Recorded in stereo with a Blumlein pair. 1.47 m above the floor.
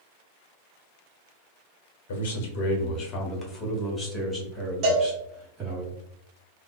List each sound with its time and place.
2.1 s a man speaking: 60° left, 1.4 m; by 5.8 s 15° right, 2.5 m
4.8 s a cowbell: 40° right, 1.6 m